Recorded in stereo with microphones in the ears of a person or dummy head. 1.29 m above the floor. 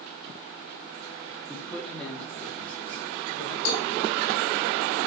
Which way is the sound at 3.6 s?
60° left (ahead or behind).